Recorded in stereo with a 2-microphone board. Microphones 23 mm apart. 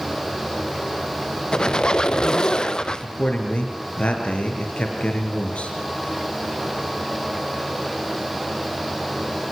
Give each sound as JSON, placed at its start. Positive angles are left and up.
{"t": 1.5, "sound": "a squeak", "side_deg": 40, "distance_m": 1.1}
{"t": 3.0, "sound": "a man speaking", "side_deg": 65, "distance_m": 5.0}